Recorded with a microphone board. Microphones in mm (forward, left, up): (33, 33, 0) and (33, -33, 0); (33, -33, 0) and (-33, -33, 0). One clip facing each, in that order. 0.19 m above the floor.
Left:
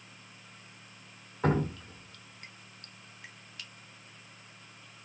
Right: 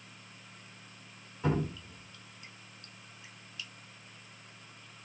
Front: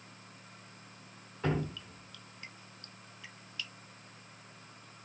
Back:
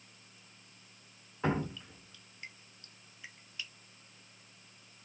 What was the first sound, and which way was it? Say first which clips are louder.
Dripping: left 3 dB, back 1 dB; 115° left.